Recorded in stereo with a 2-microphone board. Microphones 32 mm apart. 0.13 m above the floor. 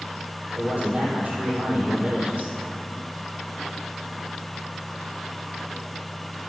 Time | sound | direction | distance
0.6 | a man speaking | 40° right (ahead or behind) | 3.5 m